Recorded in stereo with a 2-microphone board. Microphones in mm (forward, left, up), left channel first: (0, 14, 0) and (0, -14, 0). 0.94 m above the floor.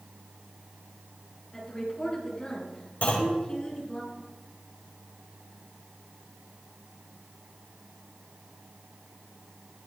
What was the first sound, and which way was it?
A woman speaking, 25° left (ahead or behind).